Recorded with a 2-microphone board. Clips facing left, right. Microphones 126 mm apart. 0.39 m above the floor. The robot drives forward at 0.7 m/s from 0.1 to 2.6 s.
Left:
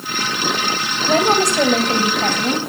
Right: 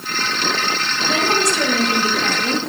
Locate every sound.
1.1 s a woman speaking: 55° left (ahead or behind), 1.7 m; by 2.6 s 40° left (ahead or behind), 2 m